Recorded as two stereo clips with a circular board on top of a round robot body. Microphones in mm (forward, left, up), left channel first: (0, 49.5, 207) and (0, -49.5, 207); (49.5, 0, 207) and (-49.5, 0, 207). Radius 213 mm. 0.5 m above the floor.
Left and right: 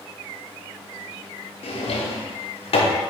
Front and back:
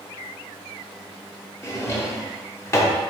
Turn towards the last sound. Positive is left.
turn(degrees=65)